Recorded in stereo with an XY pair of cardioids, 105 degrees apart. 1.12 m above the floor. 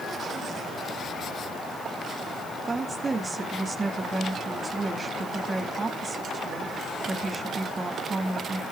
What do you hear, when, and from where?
2.7 s a woman speaking: 30° right, 2 m